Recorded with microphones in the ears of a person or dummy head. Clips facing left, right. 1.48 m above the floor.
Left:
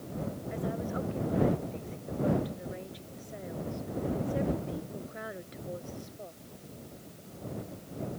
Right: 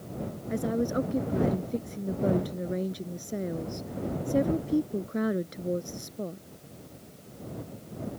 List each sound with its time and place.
0.5 s a woman speaking: 55° right (ahead or behind)